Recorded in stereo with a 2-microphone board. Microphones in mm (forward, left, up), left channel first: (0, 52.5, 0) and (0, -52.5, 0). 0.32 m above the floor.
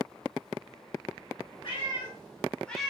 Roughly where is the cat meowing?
Left.